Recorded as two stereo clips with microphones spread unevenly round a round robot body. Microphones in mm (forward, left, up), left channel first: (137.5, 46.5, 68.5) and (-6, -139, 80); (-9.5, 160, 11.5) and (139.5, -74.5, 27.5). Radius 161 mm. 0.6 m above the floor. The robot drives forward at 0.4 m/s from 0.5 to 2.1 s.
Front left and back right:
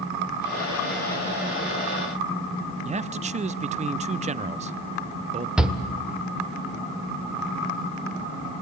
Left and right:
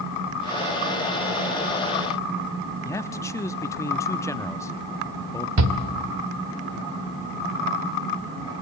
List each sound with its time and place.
2.9 s a man speaking: 170° right, 0.7 m
5.6 s a shout: 40° right, 2 m